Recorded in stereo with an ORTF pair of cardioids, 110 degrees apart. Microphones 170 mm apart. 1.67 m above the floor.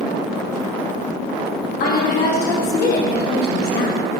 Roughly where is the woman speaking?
Ahead left.